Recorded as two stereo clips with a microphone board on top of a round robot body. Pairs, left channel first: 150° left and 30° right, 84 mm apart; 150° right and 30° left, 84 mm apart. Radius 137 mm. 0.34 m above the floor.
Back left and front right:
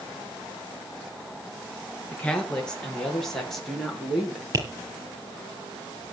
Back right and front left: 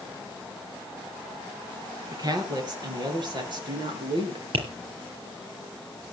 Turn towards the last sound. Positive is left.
turn(degrees=25)